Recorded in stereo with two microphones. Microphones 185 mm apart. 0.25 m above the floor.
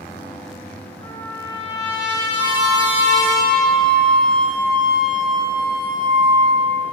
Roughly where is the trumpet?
Left.